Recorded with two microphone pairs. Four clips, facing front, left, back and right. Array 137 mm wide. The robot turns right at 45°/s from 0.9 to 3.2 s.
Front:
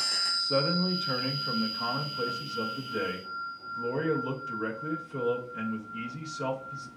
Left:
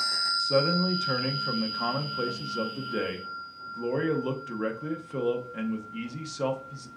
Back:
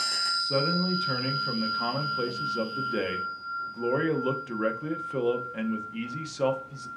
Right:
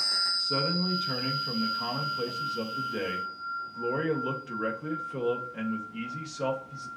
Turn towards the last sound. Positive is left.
turn(degrees=165)